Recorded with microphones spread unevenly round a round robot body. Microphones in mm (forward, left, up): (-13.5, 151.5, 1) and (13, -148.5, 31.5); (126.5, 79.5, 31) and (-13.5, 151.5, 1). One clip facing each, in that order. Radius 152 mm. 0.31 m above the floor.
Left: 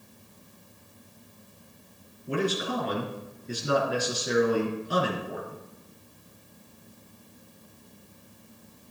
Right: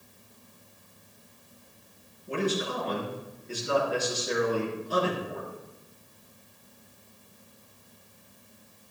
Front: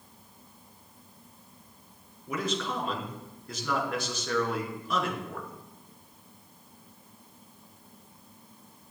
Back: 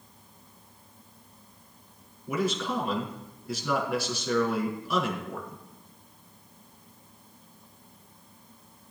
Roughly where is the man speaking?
Left.